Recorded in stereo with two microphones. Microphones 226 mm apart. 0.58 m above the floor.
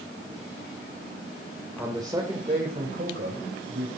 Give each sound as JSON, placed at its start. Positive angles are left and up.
{"t": 1.8, "sound": "a man speaking", "side_deg": -5, "distance_m": 2.0}